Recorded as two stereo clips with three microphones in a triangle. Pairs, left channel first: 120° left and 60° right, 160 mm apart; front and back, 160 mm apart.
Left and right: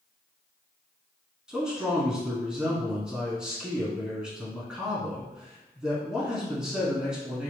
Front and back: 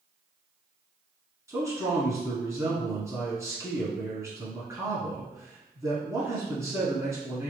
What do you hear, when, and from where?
1.5 s a man speaking: 140° right, 1.2 m